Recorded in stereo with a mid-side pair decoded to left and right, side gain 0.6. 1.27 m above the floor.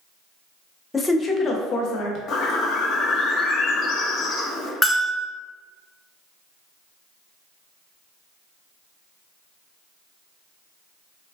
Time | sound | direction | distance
0.9 | a woman speaking | 15° left | 0.6 m
2.3 | a bird | 55° left | 0.7 m
4.8 | a bell | 10° left | 0.6 m